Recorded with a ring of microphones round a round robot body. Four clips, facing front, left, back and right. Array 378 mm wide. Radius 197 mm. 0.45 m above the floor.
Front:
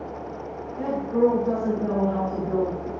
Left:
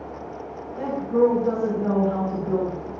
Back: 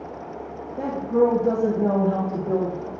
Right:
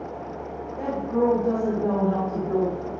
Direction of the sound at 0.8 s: 165° left.